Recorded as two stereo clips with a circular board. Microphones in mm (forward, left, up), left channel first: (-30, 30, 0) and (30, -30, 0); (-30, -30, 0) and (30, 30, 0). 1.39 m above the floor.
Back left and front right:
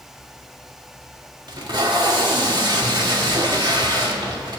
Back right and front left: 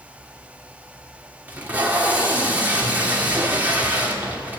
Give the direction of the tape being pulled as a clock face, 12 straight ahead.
1 o'clock.